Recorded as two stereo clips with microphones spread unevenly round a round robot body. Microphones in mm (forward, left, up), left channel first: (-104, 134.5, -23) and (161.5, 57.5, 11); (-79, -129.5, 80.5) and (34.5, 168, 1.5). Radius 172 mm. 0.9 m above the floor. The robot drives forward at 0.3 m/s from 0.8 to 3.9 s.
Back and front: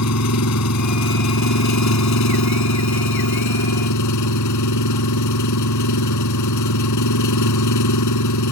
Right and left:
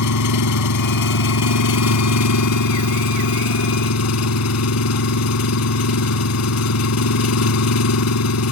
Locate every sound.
0.0 s an engine running: 145° right; by 8.5 s 150° right